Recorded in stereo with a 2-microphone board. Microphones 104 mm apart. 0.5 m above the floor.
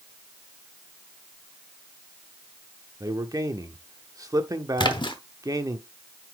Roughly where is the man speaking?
Right.